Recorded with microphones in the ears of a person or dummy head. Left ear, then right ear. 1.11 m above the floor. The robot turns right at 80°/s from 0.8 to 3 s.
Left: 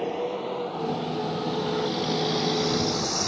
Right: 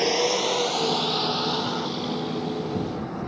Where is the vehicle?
80° right; by 3.3 s 85° left.